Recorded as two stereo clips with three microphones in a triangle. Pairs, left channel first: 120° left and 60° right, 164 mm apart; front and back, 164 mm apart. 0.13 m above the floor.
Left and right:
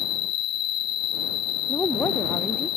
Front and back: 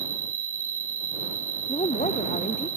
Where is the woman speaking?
40° left.